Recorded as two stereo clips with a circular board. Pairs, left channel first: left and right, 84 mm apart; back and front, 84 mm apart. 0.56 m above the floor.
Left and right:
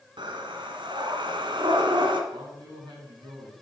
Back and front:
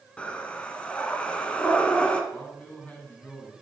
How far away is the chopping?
I don't hear chopping.